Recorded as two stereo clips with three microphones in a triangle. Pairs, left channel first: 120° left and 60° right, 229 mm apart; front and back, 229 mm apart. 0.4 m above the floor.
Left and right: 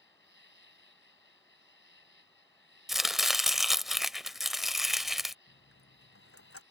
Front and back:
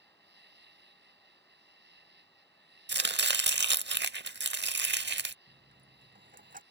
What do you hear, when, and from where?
0.0 s an insect: 145° left
2.9 s chopping: 150° right
5.5 s a dropped coin: 125° left